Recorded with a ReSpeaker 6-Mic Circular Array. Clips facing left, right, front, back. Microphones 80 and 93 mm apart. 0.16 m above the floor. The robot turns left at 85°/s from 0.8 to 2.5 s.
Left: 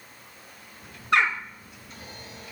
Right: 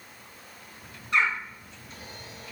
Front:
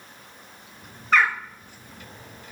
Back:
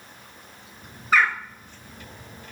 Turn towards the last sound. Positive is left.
turn(degrees=-20)